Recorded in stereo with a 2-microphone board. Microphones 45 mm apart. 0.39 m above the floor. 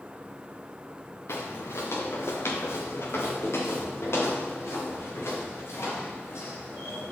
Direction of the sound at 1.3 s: 80° left.